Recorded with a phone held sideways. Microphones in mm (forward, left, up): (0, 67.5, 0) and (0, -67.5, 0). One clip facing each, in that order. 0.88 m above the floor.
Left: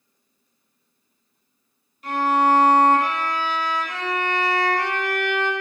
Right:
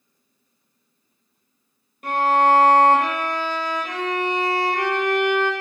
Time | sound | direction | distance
2.0 | a violin | 60° right (ahead or behind) | 0.9 m